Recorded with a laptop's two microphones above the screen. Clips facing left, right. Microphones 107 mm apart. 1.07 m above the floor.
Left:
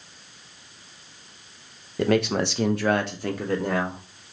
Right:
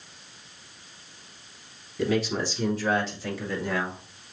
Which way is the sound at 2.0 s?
55° left (ahead or behind).